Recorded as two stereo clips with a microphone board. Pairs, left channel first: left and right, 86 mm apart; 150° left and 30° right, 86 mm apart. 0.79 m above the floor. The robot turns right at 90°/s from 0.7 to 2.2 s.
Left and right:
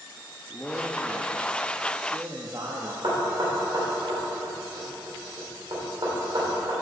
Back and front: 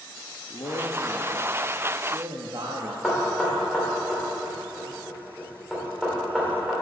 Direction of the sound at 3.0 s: 120° right.